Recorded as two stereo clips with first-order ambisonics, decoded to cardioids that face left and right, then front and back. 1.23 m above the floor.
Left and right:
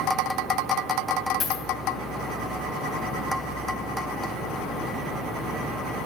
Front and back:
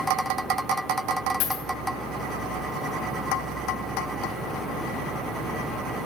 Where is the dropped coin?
25° left, 2.5 m.